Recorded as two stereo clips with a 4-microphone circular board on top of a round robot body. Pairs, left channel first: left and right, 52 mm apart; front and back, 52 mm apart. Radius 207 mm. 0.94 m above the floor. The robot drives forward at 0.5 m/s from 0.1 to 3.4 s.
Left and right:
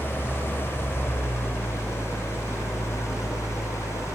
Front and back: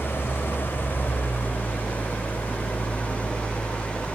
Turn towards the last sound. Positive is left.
turn(degrees=70)